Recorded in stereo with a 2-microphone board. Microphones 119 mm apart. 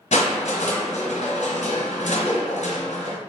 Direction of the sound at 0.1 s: 85° left.